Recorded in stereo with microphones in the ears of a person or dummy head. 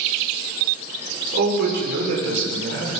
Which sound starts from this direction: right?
A man speaking, at 1.3 s.